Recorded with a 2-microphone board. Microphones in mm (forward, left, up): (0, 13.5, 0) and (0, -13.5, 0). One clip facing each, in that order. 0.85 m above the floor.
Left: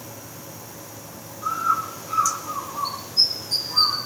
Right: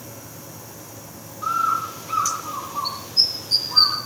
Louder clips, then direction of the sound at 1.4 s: Right 1 dB; 35° right (ahead or behind).